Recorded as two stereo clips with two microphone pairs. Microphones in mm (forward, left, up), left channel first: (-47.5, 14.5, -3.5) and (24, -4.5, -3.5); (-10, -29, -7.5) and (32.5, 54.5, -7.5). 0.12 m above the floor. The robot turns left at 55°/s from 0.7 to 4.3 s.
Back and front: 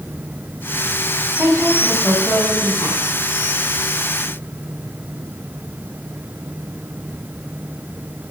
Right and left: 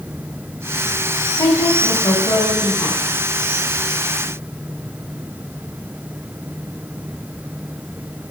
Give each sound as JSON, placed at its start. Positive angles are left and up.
{"t": 1.4, "sound": "a woman speaking", "azimuth_deg": -70, "distance_m": 6.5}